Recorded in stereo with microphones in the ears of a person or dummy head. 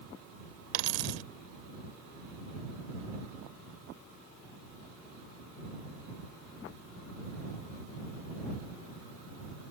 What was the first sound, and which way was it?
A dropped coin, 65° right (ahead or behind).